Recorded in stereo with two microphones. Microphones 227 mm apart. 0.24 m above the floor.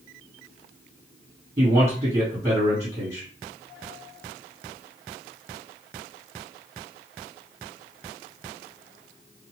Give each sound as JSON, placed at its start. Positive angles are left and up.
{"t": 1.6, "sound": "a man speaking", "side_deg": -30, "distance_m": 2.5}